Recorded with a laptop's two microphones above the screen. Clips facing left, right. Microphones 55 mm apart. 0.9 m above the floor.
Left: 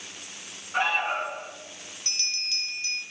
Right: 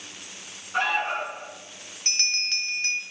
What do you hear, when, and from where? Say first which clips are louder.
0.7 s an alarm: even; 15° left (ahead or behind), 2 m
2.0 s a bell: right 6 dB; 50° right (ahead or behind), 1.0 m